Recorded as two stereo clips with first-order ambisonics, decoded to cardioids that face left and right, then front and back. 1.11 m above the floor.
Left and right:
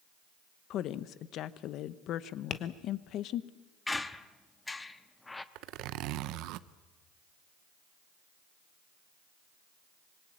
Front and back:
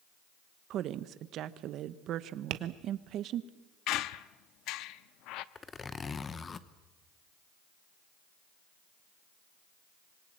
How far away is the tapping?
About 1.2 m.